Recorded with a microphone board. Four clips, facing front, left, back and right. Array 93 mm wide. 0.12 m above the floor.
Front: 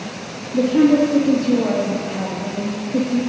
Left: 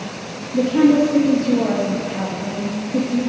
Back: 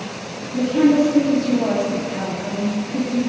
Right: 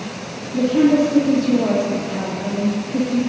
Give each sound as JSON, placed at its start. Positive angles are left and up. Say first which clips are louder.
{"t": 0.5, "sound": "a woman speaking", "louder": "left 1 dB, front 1 dB", "azimuth_deg": 45, "distance_m": 3.0}